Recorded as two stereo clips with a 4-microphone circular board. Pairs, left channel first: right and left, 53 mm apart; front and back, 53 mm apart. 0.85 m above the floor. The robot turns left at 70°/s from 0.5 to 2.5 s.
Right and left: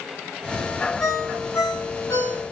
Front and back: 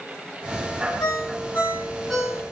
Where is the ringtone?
15° right, 6 m; by 2.4 s 115° right, 6 m.